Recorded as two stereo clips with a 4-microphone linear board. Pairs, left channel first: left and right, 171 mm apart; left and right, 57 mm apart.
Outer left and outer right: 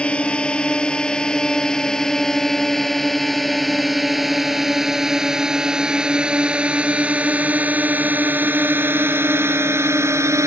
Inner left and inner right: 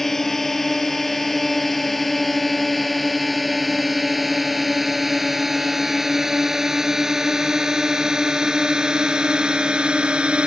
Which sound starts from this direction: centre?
A drone, at 0.0 s.